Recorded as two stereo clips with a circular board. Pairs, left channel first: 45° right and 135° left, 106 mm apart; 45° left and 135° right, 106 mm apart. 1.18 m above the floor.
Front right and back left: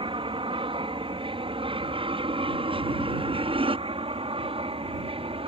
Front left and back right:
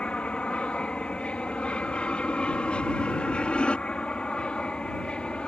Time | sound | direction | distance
0.0 | an aircraft | 125° left | ?